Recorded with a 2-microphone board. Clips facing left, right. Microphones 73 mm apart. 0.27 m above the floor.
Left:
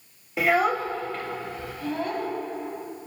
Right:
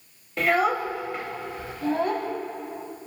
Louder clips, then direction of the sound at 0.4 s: Even; 5° left (ahead or behind).